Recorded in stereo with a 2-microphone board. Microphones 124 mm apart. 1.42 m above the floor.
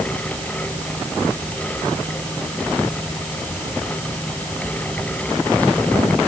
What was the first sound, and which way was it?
Only background noise.